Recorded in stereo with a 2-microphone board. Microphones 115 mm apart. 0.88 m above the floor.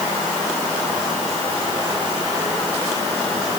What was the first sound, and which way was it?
Only background noise.